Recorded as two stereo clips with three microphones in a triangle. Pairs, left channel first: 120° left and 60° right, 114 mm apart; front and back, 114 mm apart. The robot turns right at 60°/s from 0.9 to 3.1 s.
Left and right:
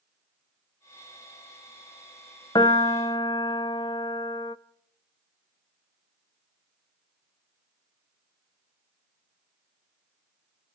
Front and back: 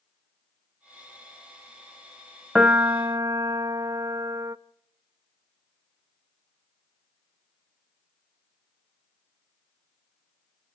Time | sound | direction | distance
2.5 | a piano | 100° left | 0.7 m